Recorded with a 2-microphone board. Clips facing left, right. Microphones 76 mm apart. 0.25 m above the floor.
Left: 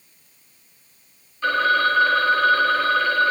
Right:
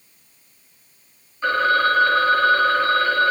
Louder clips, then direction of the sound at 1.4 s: Right 1 dB; 15° right (ahead or behind).